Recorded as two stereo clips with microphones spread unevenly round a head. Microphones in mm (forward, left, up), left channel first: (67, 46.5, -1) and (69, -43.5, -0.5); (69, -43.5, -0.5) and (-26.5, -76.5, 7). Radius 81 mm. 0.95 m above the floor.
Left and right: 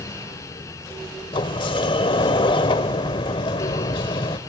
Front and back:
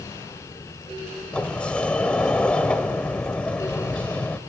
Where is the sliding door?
105° left, 1.0 m.